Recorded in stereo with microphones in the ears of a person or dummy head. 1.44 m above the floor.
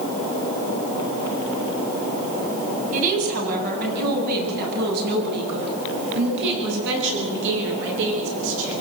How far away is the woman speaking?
About 8 m.